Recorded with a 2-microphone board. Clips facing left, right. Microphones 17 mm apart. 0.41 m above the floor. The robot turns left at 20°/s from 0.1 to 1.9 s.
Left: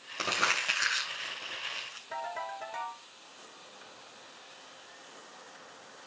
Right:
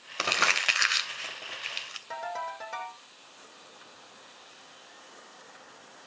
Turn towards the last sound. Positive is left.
turn(degrees=-80)